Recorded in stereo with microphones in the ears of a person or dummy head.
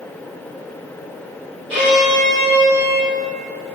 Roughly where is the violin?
Right.